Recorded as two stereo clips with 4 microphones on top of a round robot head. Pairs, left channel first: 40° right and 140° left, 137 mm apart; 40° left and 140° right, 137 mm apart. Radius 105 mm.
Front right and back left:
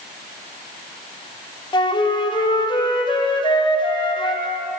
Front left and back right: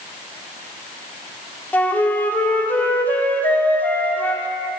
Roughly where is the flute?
Ahead right.